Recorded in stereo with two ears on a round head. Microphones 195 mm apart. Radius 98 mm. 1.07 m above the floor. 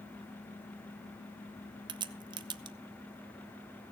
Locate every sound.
1.9 s a crack: 20° right (ahead or behind), 0.7 m